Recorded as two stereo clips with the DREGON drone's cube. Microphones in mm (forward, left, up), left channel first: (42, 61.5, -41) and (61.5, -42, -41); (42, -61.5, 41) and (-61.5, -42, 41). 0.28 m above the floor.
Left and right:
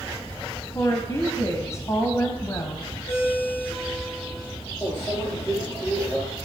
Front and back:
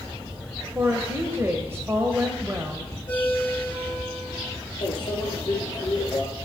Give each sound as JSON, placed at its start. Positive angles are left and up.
{"t": 0.8, "sound": "a woman speaking", "azimuth_deg": 125, "distance_m": 1.4}
{"t": 3.1, "sound": "a ringtone", "azimuth_deg": 60, "distance_m": 8.5}
{"t": 4.8, "sound": "a microwave", "azimuth_deg": 35, "distance_m": 3.5}